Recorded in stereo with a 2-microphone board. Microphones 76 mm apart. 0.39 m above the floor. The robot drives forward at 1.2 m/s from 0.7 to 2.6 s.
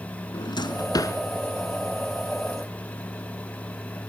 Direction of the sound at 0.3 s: 70° left (ahead or behind).